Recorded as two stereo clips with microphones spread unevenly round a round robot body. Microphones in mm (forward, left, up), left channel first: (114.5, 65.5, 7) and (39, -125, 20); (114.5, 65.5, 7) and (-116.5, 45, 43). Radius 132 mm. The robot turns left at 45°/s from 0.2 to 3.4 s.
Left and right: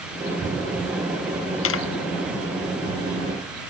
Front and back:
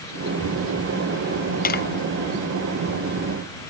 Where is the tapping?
55° left; by 1.8 s 50° left.